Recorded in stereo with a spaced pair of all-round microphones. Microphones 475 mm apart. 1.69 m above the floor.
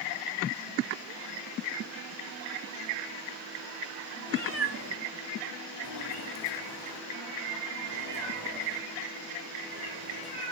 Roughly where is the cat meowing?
Right.